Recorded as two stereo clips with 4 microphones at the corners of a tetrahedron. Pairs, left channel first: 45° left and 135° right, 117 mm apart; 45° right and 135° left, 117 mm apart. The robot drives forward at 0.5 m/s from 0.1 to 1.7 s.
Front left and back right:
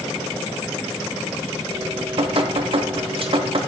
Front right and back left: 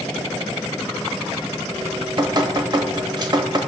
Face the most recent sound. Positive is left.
turn(degrees=-170)